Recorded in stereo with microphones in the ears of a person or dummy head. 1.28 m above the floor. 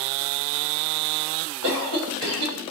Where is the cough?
80° right, 6 m.